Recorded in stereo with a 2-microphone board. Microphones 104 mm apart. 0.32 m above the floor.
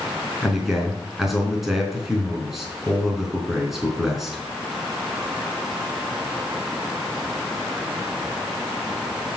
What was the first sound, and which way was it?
A man speaking, 5° right (ahead or behind).